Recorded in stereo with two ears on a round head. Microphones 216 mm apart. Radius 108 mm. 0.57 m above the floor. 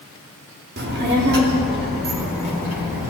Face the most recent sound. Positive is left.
turn(degrees=-40)  # may be behind; listen again after turning